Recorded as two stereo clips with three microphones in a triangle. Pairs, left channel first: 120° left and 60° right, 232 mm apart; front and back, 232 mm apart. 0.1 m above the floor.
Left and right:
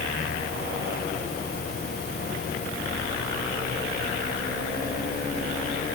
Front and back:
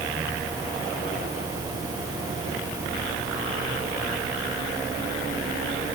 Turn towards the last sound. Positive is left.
No sound to turn to.